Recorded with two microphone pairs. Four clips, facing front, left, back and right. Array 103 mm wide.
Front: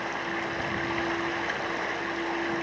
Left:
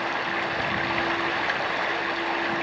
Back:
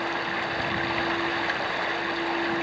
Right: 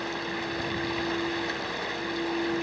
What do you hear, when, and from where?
0.0 s running water: 120° left, 0.9 m